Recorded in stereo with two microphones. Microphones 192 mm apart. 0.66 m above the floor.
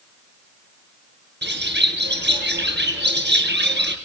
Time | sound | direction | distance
1.4 | a bird | 65° right (ahead or behind) | 3 m